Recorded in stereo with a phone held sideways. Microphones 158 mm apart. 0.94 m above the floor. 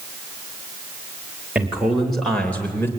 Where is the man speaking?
10° right (ahead or behind), 3.5 m; by 2.9 s 15° left (ahead or behind), 3.5 m.